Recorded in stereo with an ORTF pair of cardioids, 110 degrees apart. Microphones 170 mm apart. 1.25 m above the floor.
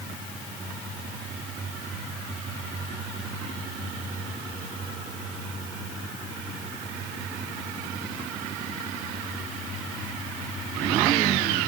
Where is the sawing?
I don't hear sawing.